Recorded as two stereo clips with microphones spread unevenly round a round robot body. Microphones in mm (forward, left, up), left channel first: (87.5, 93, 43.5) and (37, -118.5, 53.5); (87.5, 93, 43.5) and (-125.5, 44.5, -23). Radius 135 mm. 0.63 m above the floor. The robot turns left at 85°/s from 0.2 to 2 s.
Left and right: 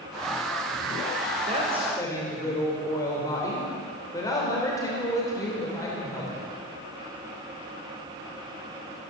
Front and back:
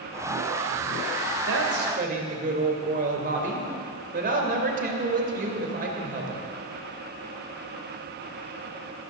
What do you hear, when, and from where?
1.5 s a woman speaking: 160° right, 3 m; by 6.5 s 155° left, 3 m